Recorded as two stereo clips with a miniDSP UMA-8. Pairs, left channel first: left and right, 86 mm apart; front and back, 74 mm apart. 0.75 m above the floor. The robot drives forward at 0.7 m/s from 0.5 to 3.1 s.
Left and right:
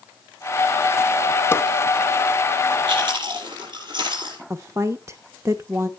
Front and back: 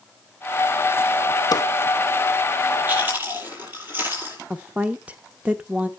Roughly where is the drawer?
Ahead left.